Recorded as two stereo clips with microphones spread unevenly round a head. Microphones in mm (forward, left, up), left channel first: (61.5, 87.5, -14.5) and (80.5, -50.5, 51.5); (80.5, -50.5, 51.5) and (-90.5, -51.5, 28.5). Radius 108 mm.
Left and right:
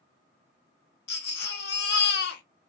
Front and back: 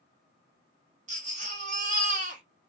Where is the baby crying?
120° left, 0.7 m.